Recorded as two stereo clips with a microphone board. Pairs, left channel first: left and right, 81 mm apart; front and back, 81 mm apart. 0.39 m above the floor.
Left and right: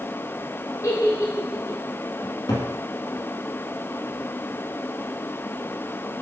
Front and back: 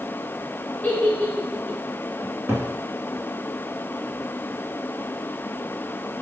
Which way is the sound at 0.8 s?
70° left.